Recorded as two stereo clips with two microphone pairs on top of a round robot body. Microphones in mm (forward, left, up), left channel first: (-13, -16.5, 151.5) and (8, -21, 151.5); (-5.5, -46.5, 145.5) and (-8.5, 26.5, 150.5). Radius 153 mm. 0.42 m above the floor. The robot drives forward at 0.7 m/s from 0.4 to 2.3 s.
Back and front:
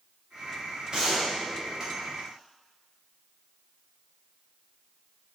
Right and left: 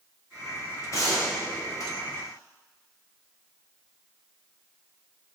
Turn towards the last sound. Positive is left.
turn(degrees=-70)